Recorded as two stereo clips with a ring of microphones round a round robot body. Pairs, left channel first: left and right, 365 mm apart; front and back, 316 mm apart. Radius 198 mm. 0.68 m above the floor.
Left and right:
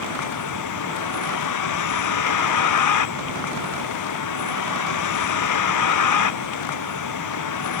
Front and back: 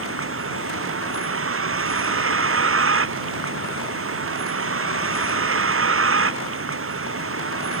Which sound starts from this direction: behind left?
A vehicle, at 0.0 s.